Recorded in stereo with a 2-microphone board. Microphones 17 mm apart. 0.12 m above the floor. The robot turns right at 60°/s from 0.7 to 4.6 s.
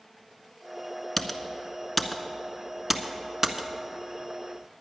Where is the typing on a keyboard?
20° left (ahead or behind), 0.6 m; by 4.4 s 20° right (ahead or behind), 0.6 m.